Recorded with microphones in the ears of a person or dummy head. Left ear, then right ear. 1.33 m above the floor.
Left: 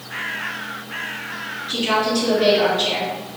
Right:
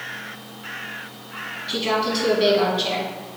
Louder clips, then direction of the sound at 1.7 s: Left 3 dB; 50° right (ahead or behind).